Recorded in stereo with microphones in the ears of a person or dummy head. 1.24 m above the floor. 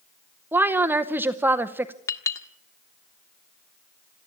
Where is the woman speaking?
10° right (ahead or behind), 0.8 m.